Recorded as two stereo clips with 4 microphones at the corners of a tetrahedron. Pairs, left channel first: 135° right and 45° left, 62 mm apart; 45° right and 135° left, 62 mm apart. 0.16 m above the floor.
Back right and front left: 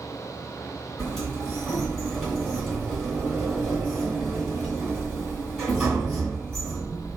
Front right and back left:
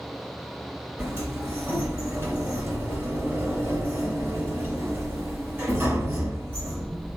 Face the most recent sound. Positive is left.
turn(degrees=140)